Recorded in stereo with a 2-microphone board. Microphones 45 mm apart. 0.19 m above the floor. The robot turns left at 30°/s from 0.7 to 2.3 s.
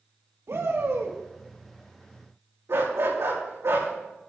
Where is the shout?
75° right (ahead or behind), 3.5 m.